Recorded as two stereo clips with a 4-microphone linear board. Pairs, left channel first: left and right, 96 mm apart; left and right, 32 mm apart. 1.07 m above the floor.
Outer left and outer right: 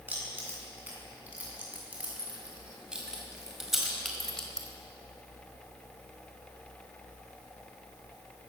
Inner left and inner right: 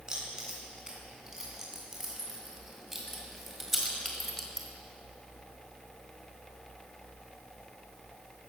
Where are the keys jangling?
20° right (ahead or behind), 8.5 m; by 4.7 s 10° left (ahead or behind), 3.5 m.